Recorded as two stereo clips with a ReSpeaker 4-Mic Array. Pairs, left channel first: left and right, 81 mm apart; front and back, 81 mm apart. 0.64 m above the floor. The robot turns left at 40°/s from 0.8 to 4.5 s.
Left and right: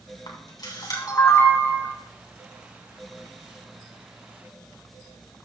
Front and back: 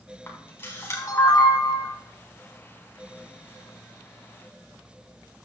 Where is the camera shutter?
60° left, 3.5 m; by 1.9 s 15° left, 3.5 m.